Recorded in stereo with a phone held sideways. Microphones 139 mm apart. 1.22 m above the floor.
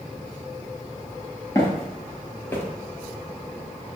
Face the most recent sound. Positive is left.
turn(degrees=15)  # may be behind; listen again after turning